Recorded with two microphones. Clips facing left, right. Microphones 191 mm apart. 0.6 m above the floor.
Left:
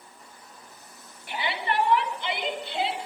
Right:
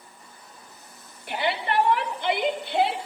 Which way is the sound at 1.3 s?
50° right (ahead or behind).